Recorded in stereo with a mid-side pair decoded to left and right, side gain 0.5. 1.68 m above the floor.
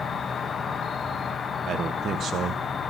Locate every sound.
0.0 s an insect: 45° left, 1.0 m
1.7 s a man speaking: 55° right, 1.2 m